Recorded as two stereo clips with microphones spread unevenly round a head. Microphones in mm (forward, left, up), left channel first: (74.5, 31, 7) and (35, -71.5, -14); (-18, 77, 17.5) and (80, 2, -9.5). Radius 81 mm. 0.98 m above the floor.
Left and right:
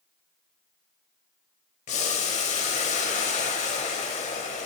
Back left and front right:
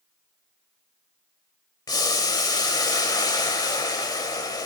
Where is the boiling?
90° left, 2.0 m.